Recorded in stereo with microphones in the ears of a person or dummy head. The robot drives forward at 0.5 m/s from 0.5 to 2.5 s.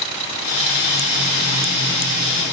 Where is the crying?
No crying in this recording.